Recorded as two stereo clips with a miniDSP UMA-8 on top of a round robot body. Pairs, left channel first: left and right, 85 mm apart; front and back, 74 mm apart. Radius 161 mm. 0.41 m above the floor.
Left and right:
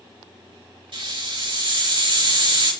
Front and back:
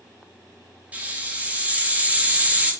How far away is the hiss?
About 4.5 m.